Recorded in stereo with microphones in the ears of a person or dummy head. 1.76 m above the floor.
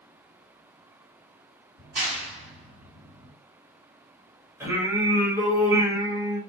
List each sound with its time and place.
1.8 s a clap: 60° right (ahead or behind), 2 m
4.6 s singing: 15° right (ahead or behind), 1.3 m